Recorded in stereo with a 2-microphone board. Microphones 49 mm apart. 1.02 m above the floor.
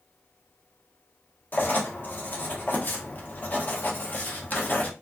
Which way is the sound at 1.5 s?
40° left (ahead or behind).